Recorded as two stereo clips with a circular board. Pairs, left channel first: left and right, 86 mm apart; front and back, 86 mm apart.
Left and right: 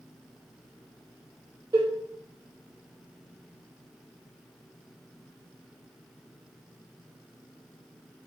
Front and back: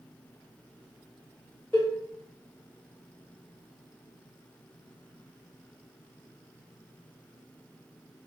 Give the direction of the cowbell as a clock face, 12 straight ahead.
2 o'clock.